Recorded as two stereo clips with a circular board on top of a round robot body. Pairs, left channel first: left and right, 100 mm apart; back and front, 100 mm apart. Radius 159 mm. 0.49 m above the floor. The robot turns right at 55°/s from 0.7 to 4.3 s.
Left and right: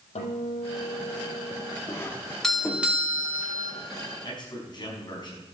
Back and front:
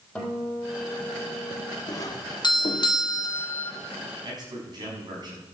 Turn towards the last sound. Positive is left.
turn(degrees=45)